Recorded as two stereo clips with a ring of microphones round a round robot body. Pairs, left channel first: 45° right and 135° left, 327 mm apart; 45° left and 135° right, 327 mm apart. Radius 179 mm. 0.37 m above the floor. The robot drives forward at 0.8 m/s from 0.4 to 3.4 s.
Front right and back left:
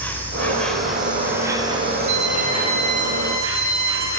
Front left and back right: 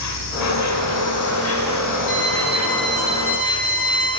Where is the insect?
40° left, 3 m; by 4.2 s 115° left, 2.5 m.